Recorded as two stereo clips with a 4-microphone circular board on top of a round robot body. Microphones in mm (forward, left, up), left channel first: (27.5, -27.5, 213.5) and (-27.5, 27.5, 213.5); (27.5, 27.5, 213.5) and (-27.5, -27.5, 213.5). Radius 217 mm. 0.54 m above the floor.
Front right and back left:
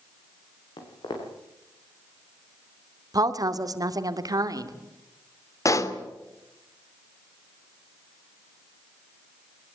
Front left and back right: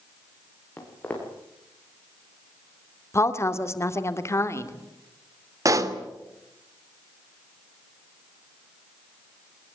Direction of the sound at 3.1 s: 100° left.